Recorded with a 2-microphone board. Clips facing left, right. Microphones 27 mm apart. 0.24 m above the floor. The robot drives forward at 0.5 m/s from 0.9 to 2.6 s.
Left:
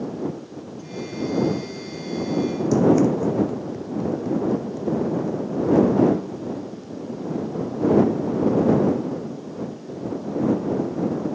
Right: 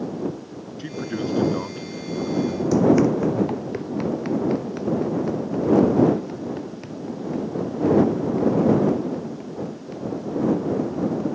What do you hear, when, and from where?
0.8 s a man speaking: 60° right (ahead or behind); by 2.6 s 65° right (ahead or behind)
2.7 s running footsteps: 15° right (ahead or behind); by 11.2 s 65° right (ahead or behind)